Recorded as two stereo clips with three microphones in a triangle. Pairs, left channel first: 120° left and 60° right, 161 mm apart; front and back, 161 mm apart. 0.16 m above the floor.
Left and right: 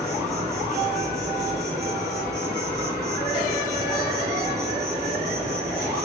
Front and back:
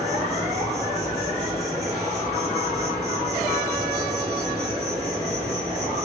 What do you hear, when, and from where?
0.0 s an insect: 110° right, 8.5 m